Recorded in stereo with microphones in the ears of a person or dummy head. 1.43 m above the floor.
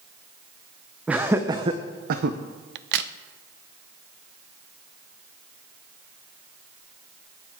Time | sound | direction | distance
1.1 | laughter | 10° right (ahead or behind) | 0.8 m
2.8 | a crack | 60° right (ahead or behind) | 0.6 m